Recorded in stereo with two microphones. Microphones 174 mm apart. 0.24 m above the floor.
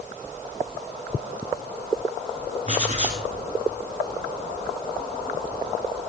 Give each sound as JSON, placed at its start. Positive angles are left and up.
{"t": 2.7, "sound": "writing", "side_deg": -45, "distance_m": 1.6}